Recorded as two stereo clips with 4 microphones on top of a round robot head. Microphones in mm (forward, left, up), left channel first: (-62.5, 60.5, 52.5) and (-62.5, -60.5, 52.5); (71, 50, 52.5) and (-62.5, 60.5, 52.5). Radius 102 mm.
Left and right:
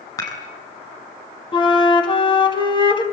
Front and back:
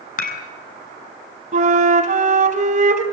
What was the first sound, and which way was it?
Dishes clattering, 20° left.